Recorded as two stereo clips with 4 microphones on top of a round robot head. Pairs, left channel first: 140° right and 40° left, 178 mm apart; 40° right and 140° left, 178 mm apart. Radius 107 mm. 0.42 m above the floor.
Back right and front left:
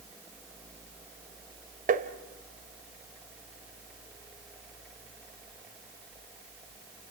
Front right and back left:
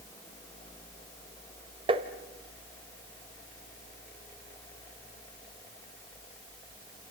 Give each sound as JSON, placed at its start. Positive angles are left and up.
{"t": 1.9, "sound": "tapping", "azimuth_deg": 80, "distance_m": 1.6}